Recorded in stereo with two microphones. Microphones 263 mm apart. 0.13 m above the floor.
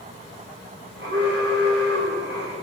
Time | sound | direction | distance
1.0 | an alarm | 50° right (ahead or behind) | 8 m